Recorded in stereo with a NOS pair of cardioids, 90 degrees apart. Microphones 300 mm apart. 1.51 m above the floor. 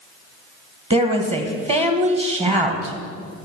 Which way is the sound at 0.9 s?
20° right.